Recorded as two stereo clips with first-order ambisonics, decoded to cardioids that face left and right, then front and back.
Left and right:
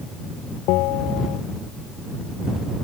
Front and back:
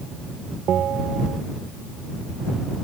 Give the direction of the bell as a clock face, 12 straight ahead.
8 o'clock.